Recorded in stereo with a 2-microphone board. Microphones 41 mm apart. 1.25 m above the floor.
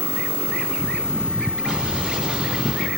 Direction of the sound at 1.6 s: 25° right (ahead or behind).